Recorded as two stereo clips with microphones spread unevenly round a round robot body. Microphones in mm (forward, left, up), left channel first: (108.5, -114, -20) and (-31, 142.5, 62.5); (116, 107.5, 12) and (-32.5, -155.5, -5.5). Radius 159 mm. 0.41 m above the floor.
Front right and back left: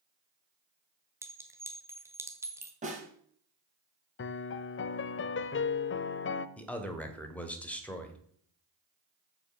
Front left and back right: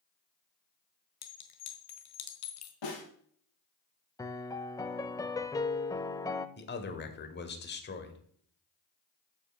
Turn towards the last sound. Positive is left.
turn(degrees=10)